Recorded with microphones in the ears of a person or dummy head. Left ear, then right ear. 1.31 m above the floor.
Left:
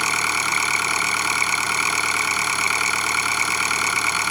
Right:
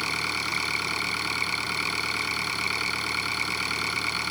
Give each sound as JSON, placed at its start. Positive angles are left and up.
{"t": 0.0, "sound": "an engine running", "side_deg": 35}